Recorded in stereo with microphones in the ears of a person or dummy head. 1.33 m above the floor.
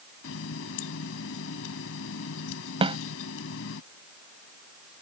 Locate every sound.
0.2 s a running tap: 75° left (ahead or behind)
2.8 s a snare drum: 25° right (ahead or behind)